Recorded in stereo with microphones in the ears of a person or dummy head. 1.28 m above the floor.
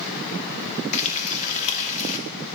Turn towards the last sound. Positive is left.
turn(degrees=40)  # may be behind; listen again after turning